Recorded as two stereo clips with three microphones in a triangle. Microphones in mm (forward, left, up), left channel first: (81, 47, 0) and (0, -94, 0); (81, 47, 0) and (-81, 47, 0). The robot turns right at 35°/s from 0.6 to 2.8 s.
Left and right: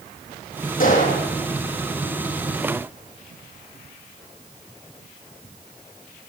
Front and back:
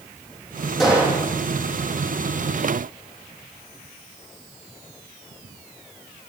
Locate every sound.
0.8 s a gunshot: 90° left, 5.5 m; by 1.3 s 105° left, 5.5 m